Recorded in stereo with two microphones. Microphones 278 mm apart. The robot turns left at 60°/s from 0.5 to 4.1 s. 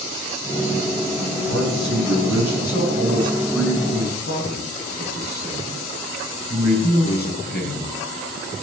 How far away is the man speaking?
About 6 m.